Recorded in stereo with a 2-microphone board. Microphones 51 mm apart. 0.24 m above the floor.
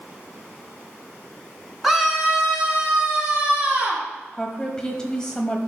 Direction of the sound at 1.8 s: Centre (ahead or behind).